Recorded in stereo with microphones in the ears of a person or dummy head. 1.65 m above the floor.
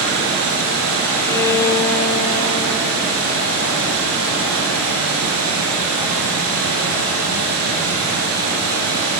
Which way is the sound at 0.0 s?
80° right.